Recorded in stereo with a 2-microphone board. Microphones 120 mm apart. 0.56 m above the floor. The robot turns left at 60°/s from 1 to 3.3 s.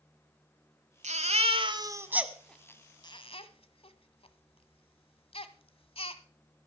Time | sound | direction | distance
1.0 | a baby crying | 80° right | 1.2 m